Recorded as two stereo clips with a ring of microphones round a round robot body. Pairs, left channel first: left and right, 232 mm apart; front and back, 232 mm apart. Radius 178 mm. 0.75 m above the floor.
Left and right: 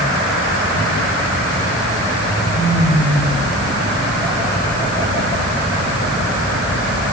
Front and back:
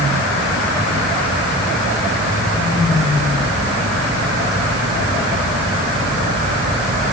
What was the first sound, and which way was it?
Only background noise.